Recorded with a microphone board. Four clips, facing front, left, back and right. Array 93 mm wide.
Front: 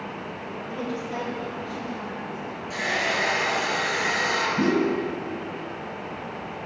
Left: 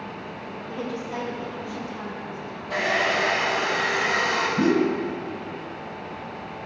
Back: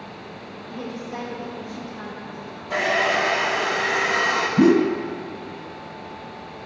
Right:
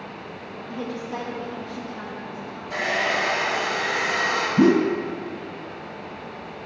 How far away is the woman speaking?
About 5 m.